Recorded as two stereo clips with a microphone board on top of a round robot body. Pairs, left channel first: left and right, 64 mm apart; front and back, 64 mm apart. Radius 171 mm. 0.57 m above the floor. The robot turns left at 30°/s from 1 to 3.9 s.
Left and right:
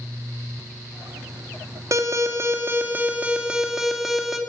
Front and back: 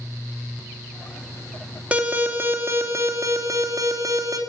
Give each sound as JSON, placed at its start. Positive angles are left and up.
{"t": 1.9, "sound": "an alarm", "azimuth_deg": -110, "distance_m": 2.5}